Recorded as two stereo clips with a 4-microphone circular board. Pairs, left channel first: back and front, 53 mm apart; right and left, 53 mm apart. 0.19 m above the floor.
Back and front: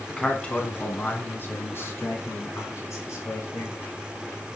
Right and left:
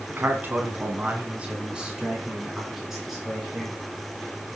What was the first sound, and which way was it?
A man speaking, 105° left.